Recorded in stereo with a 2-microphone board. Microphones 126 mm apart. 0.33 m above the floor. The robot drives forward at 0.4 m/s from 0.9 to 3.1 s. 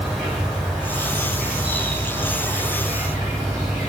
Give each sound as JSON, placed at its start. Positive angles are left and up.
{"t": 0.0, "sound": "an insect", "side_deg": 0, "distance_m": 1.6}